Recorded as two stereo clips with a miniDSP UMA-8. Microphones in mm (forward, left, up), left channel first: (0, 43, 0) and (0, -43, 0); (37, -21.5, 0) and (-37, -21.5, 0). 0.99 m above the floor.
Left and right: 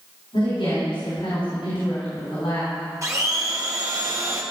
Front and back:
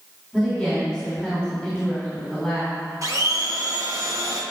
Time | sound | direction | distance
0.3 | a woman speaking | 95° left | 4 m
3.0 | a blender | 140° right | 1.6 m